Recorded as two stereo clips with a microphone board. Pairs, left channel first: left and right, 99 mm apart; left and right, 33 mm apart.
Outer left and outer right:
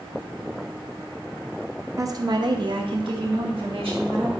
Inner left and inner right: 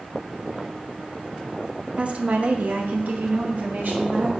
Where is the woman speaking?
35° right (ahead or behind), 0.7 m; by 4.3 s 75° right (ahead or behind), 2 m.